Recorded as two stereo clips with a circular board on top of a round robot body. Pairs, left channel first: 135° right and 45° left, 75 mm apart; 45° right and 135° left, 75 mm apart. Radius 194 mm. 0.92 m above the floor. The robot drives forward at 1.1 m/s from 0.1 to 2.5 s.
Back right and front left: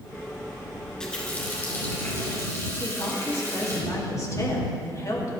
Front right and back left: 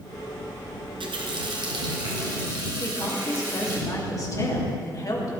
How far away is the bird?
No bird in this recording.